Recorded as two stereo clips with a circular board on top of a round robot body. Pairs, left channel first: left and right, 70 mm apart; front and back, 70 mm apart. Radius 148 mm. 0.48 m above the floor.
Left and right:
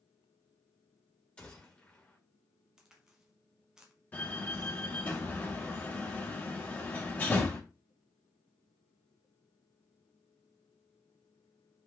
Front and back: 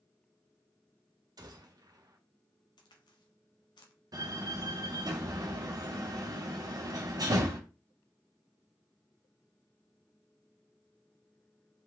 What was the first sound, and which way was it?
A gunshot, 165° left.